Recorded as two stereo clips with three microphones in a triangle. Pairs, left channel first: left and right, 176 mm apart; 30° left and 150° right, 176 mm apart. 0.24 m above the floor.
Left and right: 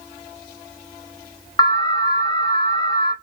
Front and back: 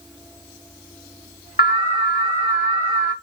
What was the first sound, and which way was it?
An alarm, 35° left.